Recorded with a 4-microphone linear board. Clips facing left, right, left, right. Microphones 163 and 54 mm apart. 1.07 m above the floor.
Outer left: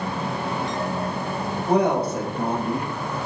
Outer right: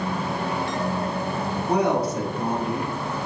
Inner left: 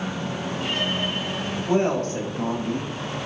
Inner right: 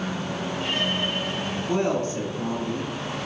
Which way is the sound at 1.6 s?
45° left (ahead or behind).